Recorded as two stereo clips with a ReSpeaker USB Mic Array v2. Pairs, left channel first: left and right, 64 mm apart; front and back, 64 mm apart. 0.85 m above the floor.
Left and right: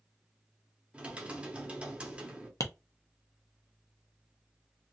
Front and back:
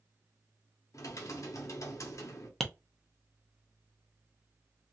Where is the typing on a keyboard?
20° right, 0.8 m.